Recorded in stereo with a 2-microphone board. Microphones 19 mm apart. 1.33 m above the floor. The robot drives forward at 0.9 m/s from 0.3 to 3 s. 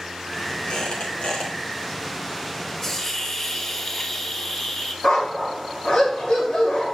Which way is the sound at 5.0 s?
50° left (ahead or behind).